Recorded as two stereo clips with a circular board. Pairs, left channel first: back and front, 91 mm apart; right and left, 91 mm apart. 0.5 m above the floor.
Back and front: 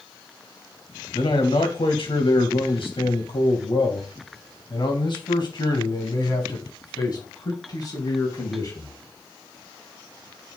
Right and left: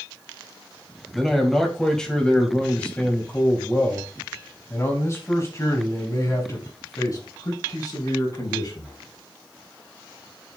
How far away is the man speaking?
About 3 m.